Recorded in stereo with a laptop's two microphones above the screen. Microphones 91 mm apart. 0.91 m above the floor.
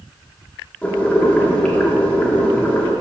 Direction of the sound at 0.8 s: 15° left (ahead or behind).